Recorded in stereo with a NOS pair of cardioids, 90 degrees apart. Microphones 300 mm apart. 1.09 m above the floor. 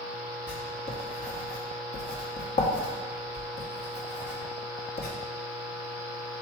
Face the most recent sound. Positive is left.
turn(degrees=35)